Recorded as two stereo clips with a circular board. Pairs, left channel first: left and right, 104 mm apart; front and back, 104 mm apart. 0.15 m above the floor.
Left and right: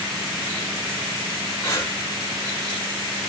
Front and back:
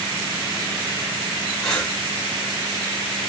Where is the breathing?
80° left, 1.6 m.